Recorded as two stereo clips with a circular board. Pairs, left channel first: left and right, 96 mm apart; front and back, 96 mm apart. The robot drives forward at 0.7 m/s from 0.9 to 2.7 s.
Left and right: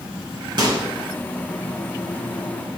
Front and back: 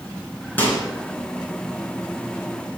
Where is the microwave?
65° right, 2.5 m.